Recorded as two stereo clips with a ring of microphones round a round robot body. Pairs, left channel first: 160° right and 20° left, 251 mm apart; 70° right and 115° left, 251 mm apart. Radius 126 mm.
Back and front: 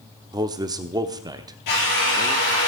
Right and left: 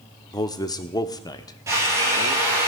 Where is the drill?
170° right, 6.5 m.